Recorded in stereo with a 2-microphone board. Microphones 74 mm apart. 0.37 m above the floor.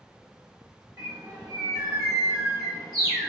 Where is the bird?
55° right (ahead or behind), 2 m.